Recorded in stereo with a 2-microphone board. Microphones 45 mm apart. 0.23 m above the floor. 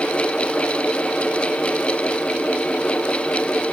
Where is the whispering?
No whispering in this recording.